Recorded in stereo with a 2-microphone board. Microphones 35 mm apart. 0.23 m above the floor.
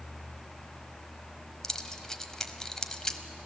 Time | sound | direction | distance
1.6 | keys jangling | 15° left (ahead or behind) | 1.0 m